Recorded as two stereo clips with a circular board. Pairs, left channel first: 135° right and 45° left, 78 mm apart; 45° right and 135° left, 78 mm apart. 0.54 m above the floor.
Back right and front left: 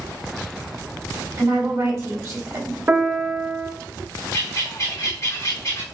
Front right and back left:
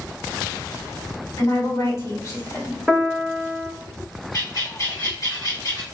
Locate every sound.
1.4 s a woman speaking: straight ahead, 2 m
2.9 s a piano: 50° left, 0.9 m
4.3 s a bird: 85° right, 2 m